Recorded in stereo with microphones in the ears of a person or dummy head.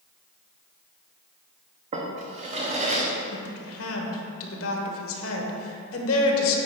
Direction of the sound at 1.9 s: 30° right (ahead or behind).